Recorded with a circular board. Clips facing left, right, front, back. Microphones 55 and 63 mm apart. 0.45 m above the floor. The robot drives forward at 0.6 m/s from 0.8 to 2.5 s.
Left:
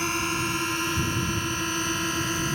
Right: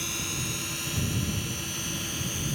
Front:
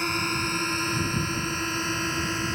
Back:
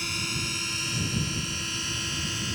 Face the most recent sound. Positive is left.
turn(degrees=55)